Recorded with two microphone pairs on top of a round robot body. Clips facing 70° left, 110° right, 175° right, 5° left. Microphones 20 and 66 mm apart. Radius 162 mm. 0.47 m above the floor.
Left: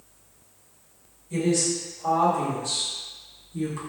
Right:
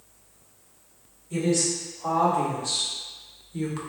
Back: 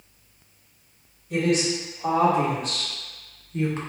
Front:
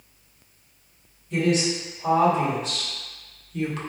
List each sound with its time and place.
1.3 s a woman speaking: 175° right, 1.9 m; by 3.8 s 130° right, 1.1 m